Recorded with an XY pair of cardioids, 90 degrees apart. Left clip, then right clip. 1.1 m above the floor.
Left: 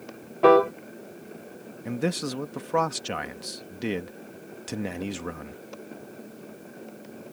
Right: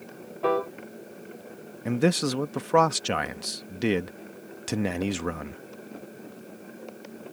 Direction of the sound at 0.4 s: 65° left.